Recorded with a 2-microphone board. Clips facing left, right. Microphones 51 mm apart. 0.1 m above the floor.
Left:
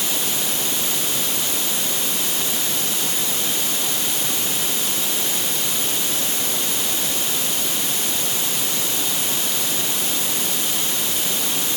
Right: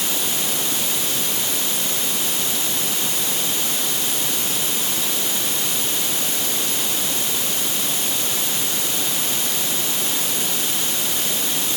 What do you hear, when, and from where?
Only background noise.